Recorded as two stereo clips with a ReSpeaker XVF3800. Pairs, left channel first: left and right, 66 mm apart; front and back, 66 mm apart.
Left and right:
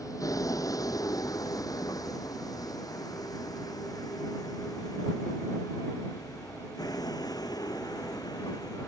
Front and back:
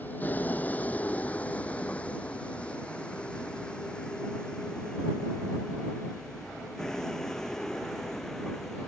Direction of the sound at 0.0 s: 65° left.